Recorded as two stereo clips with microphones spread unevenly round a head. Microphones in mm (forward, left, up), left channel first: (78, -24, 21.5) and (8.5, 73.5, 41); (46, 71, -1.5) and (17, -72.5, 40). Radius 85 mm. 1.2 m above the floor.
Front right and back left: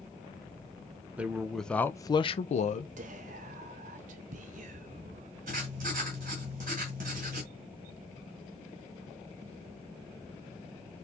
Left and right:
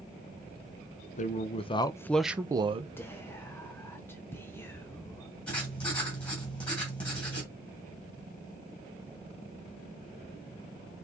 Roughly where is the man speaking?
Ahead left.